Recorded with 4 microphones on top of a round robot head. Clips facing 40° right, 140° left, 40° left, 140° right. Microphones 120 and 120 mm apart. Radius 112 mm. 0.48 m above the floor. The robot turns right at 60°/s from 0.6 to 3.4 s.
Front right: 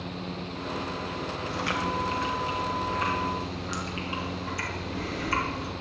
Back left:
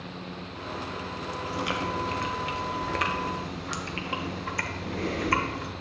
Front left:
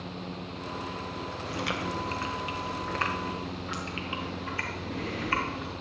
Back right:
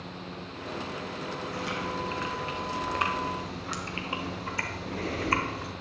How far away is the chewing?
About 1.2 m.